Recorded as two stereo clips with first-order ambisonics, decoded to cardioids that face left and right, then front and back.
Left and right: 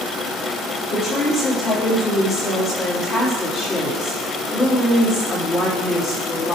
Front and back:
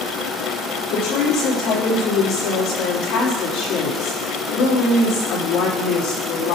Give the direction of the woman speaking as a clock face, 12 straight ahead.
11 o'clock.